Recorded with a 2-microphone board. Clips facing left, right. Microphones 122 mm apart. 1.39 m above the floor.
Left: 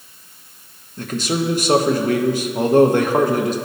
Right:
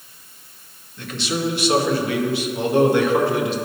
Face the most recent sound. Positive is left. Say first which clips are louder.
# left 3 dB
turn(degrees=45)  # may be behind; listen again after turning